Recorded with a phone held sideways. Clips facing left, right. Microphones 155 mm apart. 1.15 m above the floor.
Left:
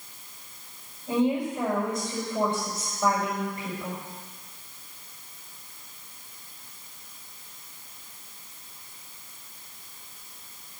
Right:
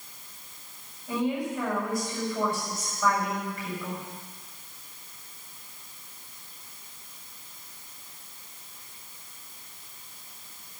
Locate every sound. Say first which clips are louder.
1.1 s a woman speaking: left 4 dB; 25° left (ahead or behind), 5 m